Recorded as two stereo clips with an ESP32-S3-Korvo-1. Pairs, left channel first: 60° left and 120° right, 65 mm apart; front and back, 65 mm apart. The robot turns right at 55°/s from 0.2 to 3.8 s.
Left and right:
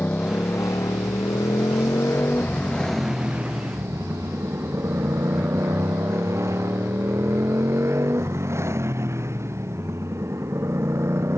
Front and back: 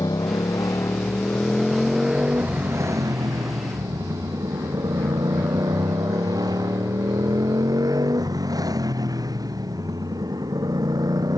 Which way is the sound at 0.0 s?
5° right.